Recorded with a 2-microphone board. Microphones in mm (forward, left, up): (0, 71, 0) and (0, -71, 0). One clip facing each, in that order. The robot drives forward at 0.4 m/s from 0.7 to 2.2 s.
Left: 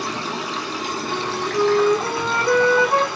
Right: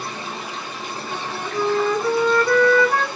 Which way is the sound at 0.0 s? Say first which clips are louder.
Left 4 dB; 80° left.